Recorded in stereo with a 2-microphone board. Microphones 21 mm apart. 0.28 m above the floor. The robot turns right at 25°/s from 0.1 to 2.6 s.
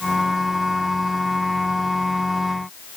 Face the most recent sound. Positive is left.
No sound to turn to.